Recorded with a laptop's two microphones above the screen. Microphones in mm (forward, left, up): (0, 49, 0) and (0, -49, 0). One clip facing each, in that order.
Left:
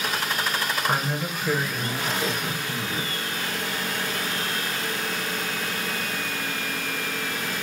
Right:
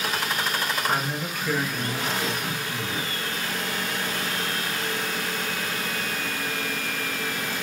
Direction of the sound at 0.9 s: 15° left (ahead or behind).